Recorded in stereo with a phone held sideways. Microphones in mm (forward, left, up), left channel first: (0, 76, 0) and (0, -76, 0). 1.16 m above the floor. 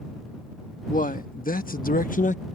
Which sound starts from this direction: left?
A man speaking, at 0.9 s.